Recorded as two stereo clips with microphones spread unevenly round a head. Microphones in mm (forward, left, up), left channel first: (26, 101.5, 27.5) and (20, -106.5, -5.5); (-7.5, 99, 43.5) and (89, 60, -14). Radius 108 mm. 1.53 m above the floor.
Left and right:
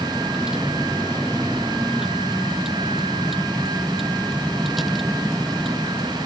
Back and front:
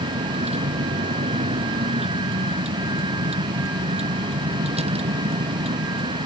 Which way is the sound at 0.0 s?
5° right.